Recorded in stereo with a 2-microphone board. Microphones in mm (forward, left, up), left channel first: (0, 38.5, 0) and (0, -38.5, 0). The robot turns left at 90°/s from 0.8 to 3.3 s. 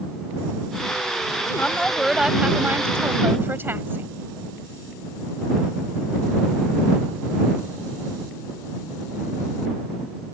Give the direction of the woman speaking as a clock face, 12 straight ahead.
11 o'clock.